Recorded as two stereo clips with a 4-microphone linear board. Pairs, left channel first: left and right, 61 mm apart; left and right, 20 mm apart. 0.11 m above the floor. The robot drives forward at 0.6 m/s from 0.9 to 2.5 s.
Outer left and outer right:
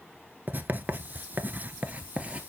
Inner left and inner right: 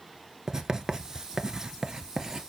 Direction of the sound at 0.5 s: 30° right (ahead or behind).